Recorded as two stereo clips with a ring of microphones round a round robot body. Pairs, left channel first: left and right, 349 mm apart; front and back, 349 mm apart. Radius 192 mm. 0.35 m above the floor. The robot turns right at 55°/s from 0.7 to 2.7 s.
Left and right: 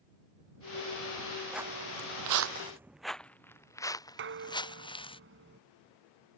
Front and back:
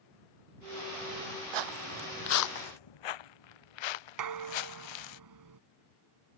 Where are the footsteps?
Straight behind; by 5.2 s 15° left.